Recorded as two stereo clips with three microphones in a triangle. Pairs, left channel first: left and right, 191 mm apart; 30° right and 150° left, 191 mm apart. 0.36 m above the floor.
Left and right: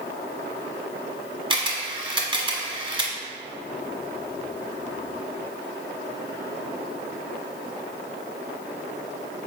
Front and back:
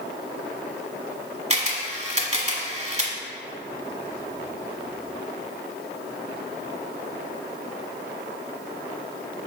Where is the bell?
No bell in this recording.